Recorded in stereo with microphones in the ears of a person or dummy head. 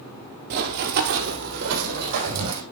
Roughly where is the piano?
No piano in this recording.